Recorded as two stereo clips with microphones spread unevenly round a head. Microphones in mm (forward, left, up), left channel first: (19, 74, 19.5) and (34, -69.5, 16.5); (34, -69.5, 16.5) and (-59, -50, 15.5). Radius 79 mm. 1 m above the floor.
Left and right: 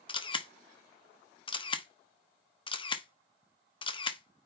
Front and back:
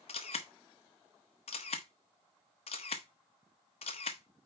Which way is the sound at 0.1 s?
40° left.